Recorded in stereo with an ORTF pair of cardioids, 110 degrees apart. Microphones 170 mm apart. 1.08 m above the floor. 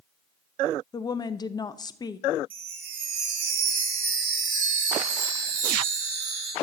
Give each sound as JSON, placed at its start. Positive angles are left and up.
{"t": 0.9, "sound": "a woman speaking", "azimuth_deg": 25, "distance_m": 0.6}
{"t": 2.5, "sound": "a chime", "azimuth_deg": -55, "distance_m": 3.0}